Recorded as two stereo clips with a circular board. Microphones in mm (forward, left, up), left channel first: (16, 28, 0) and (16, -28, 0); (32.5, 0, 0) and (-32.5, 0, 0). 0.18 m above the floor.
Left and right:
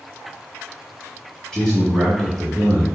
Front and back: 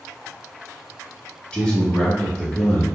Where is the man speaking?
30° left, 1.1 m.